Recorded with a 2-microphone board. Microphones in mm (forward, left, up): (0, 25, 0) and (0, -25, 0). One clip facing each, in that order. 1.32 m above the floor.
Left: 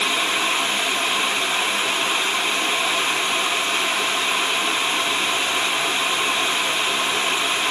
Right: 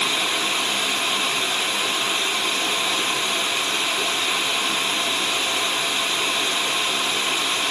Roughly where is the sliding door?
No sliding door in this recording.